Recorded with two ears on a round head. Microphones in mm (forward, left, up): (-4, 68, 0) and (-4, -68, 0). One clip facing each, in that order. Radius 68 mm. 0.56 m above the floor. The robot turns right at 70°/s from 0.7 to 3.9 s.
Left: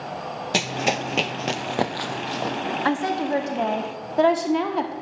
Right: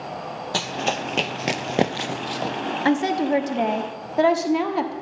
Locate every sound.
0.5 s running footsteps: 20° left (ahead or behind), 0.6 m; by 2.6 s centre (ahead or behind), 0.9 m
2.9 s a woman speaking: 25° right (ahead or behind), 1.2 m; by 4.9 s 5° right (ahead or behind), 1.2 m